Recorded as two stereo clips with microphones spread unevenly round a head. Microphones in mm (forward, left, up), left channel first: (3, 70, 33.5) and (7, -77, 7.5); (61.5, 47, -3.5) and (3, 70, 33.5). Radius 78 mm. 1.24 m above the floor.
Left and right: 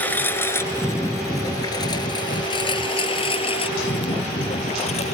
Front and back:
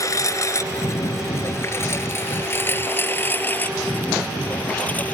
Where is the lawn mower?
15° left; by 5.1 s 45° left.